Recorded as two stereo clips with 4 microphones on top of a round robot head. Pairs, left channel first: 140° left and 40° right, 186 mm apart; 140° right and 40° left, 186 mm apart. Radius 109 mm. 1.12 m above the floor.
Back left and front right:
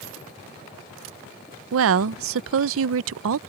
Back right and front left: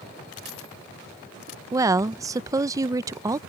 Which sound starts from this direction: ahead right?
A woman speaking, at 1.7 s.